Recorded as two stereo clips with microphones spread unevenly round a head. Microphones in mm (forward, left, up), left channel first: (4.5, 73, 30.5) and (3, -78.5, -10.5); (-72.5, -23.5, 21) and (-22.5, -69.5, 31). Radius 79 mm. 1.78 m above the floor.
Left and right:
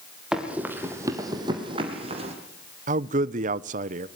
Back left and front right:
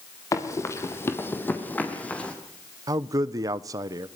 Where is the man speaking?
45° right, 0.9 m.